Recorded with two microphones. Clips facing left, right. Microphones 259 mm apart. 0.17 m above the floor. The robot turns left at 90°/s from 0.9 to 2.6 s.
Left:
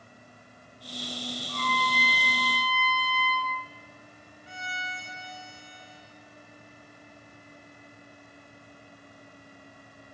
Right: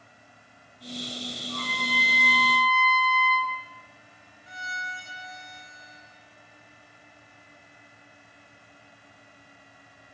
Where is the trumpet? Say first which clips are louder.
Right 1 dB; 155° right, 2.5 m; by 3.5 s 105° left, 2.5 m.